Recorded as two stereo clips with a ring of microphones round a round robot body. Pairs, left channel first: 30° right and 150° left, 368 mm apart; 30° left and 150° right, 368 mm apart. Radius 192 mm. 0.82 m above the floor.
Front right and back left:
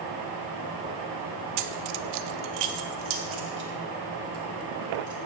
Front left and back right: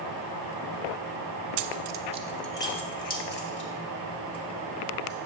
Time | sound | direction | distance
1.6 | keys jangling | 170° right | 0.5 m